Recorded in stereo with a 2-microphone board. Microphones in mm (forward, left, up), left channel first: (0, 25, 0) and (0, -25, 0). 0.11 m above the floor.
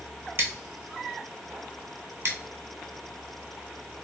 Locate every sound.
0.4 s scissors: 60° right (ahead or behind), 0.7 m